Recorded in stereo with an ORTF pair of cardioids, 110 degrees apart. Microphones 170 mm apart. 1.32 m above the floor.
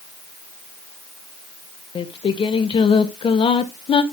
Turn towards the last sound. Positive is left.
turn(degrees=35)